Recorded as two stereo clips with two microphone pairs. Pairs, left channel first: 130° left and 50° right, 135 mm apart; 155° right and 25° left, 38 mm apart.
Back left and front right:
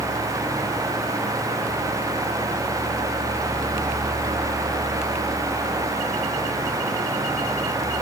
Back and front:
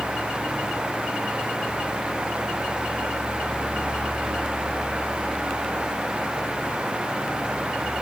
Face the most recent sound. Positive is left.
No sound to turn to.